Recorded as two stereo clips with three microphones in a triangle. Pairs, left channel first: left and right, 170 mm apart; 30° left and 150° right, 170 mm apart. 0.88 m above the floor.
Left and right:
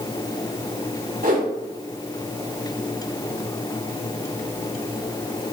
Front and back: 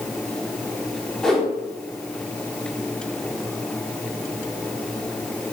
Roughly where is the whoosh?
Ahead right.